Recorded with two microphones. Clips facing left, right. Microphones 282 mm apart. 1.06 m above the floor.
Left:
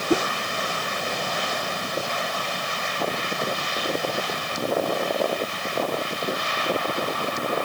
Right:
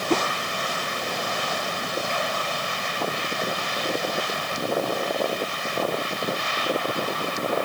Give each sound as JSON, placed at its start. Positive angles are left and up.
{"t": 0.1, "sound": "a whoosh", "side_deg": 10}